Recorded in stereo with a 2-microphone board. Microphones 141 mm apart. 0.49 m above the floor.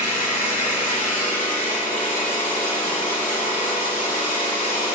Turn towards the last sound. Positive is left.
turn(degrees=75)  # may be behind; listen again after turning